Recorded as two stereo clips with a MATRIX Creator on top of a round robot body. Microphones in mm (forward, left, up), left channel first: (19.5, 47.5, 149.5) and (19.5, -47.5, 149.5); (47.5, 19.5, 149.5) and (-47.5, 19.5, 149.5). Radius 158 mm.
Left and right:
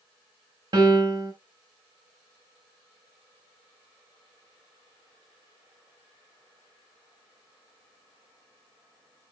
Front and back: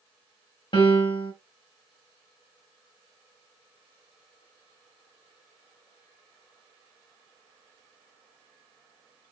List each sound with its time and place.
0.7 s a piano: 45° right, 0.7 m